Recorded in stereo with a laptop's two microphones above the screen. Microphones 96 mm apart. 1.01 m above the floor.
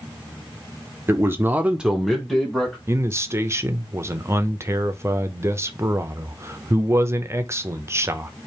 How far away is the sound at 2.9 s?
About 0.5 m.